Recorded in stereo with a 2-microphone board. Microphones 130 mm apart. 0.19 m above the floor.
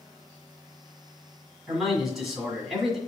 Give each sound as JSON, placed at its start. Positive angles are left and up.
{"t": 1.7, "sound": "a man speaking", "side_deg": 0, "distance_m": 1.6}